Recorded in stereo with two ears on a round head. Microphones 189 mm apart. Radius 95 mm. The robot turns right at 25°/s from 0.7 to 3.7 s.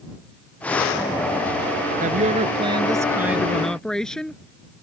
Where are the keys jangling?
No keys jangling in this recording.